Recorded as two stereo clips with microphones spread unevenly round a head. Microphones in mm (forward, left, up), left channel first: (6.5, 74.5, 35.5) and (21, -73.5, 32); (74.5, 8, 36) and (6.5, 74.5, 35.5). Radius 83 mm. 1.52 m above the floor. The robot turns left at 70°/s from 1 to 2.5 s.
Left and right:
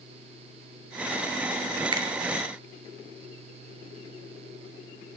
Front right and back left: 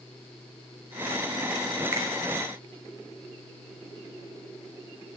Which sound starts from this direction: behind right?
A finger snap, at 1.9 s.